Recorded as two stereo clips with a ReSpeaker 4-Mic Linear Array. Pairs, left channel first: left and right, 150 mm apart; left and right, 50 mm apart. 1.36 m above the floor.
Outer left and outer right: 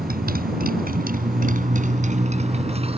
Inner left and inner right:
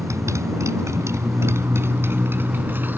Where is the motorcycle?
85° right; by 3.0 s 40° right (ahead or behind).